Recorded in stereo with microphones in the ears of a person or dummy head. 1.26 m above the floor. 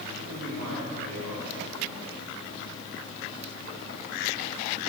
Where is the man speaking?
55° right (ahead or behind), 9 m.